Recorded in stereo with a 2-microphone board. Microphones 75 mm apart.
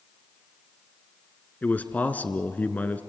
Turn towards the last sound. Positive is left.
turn(degrees=25)  # may be behind; listen again after turning